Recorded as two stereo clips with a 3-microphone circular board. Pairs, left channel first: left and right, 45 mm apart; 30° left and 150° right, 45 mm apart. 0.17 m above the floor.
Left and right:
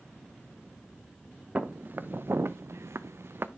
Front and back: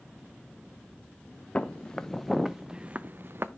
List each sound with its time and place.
1.6 s footsteps: 35° right, 1.1 m; by 3.5 s 120° right, 0.7 m